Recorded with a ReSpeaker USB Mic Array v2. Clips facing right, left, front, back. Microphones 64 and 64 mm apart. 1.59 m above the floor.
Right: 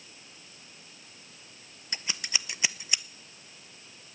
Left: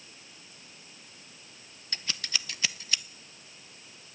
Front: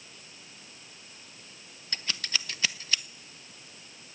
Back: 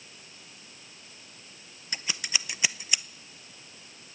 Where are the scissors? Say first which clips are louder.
Right 1 dB, back 1 dB; 130° right, 0.6 m.